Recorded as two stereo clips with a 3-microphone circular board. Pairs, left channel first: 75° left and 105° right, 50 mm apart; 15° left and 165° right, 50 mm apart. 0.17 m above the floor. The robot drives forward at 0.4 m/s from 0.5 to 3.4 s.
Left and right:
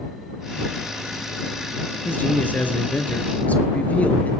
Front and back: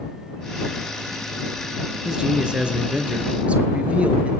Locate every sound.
2.0 s a man speaking: 120° left, 2.5 m; by 4.3 s 130° left, 2.5 m